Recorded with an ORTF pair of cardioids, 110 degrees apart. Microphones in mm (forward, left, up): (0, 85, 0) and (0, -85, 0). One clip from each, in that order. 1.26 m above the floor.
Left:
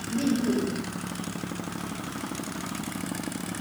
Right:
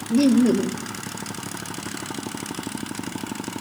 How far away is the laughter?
About 1.4 m.